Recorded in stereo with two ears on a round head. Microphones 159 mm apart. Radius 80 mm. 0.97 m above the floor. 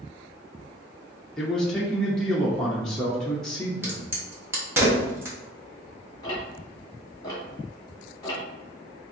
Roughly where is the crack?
Centre.